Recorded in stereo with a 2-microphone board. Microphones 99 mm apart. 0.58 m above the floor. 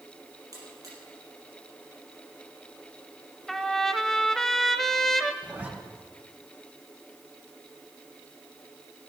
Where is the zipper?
15° right (ahead or behind), 2 m.